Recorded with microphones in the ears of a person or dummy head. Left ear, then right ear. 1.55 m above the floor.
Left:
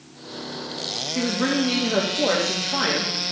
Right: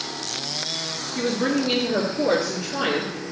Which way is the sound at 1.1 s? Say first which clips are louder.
Even; 55° left (ahead or behind).